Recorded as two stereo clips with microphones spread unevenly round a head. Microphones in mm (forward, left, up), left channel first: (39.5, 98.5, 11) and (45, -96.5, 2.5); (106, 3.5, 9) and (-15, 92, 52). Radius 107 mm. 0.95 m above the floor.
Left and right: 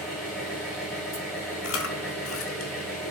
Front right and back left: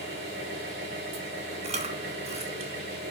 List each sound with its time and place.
0.0 s an engine running: straight behind, 3 m
1.6 s chewing: 110° left, 1.3 m